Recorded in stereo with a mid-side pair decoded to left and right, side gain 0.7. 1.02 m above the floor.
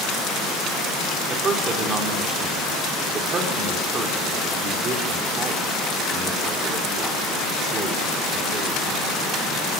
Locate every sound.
1.3 s a man speaking: 35° right, 3 m